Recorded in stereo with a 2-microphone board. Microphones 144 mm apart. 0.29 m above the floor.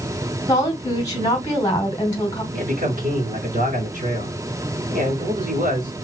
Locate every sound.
0.5 s a woman speaking: 25° left (ahead or behind), 1.7 m
2.5 s a man speaking: 65° right (ahead or behind), 2 m